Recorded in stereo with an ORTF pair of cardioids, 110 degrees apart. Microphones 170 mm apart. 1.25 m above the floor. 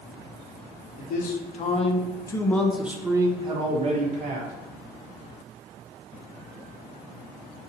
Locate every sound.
1.0 s a man speaking: 60° left, 1.0 m; by 4.5 s 50° right, 1.2 m